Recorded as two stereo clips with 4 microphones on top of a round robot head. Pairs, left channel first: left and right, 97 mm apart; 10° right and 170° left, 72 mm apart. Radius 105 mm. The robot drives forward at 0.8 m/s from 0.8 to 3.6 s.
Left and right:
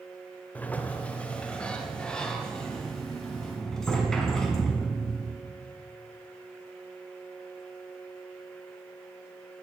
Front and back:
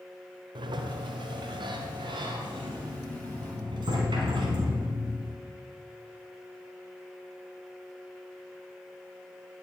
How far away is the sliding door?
About 1.4 m.